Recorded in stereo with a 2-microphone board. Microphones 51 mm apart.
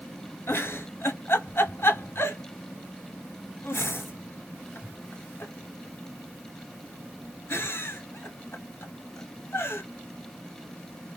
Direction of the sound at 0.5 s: 55° left (ahead or behind).